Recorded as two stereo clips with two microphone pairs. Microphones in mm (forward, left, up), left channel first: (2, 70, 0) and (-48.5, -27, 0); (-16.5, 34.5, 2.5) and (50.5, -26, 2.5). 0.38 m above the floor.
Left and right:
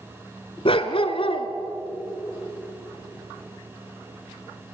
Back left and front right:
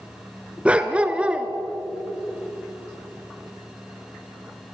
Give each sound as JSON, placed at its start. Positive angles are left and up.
{"t": 0.7, "sound": "a dog barking", "azimuth_deg": 35, "distance_m": 1.2}